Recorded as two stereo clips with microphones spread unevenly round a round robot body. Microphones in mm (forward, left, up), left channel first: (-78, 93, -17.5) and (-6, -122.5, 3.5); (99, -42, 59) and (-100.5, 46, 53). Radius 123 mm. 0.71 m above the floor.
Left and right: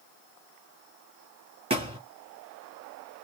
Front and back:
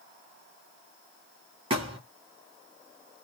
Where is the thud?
135° right, 3.5 m.